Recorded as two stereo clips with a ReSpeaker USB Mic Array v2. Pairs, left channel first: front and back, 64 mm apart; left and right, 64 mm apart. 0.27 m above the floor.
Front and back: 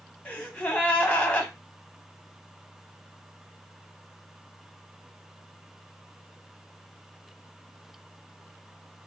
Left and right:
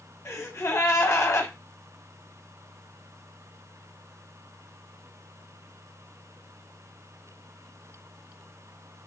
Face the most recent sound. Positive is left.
turn(degrees=65)